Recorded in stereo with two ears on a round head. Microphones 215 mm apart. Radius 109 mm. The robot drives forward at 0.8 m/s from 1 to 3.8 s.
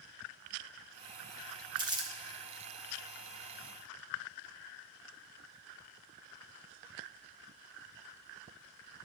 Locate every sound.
1.8 s crumpling: 20° right (ahead or behind), 1.1 m; by 2.1 s 15° right (ahead or behind), 1.4 m